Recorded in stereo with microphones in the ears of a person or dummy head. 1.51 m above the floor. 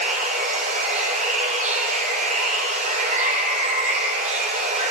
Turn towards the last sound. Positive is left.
turn(degrees=-50)  # may be behind; listen again after turning